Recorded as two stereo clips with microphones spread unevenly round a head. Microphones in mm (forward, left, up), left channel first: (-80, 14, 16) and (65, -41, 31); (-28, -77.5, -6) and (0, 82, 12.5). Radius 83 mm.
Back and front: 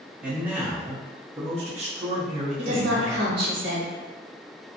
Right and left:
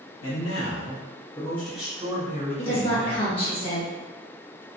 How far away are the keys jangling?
I don't hear keys jangling.